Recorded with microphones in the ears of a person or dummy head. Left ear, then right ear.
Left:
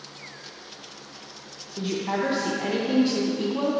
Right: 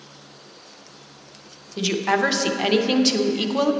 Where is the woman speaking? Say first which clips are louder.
Right 7 dB; 55° right (ahead or behind), 0.6 m.